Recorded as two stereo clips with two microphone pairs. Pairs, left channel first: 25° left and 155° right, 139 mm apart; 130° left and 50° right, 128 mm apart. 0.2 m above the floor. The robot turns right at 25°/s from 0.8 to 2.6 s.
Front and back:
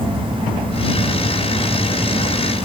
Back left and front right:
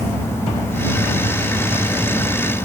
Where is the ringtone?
No ringtone in this recording.